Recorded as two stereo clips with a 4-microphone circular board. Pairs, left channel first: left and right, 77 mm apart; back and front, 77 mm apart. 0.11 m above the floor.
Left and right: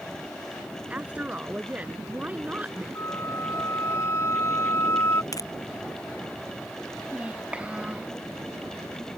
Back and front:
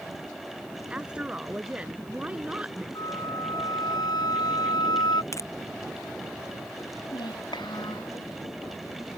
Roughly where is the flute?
Behind left.